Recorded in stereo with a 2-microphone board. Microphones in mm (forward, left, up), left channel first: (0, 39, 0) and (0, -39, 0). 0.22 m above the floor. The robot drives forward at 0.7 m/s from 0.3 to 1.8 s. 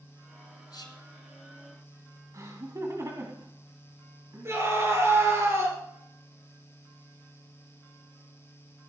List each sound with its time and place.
0.7 s whispering: 55° left (ahead or behind), 2.5 m
2.3 s laughter: 45° right (ahead or behind), 1.6 m
4.5 s a scream: 35° right (ahead or behind), 4.5 m